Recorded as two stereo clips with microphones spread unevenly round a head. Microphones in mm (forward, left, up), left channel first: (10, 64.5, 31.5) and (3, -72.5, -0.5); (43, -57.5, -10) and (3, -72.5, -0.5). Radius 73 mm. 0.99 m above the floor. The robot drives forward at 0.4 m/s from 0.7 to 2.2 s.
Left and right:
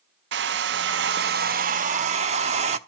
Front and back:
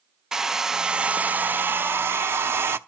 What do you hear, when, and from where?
0.3 s a hair dryer: 90° right, 0.5 m; by 2.8 s 145° right, 0.8 m